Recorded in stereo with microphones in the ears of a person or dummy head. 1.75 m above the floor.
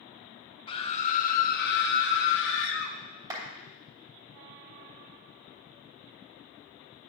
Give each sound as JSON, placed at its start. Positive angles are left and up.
{"t": 0.7, "sound": "a scream", "side_deg": 30, "distance_m": 0.9}
{"t": 3.3, "sound": "a clap", "side_deg": -25, "distance_m": 3.0}